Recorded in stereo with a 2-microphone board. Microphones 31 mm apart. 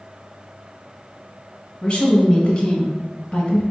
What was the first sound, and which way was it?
A woman speaking, 25° left (ahead or behind).